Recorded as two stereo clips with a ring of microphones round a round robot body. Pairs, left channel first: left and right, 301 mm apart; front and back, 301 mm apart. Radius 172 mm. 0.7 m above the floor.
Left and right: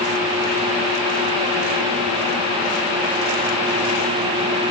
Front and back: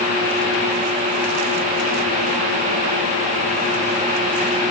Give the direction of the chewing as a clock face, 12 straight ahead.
I don't hear chewing.